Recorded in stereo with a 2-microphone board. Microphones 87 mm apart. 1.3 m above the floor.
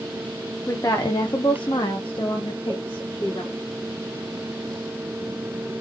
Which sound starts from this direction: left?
A woman speaking, at 0.7 s.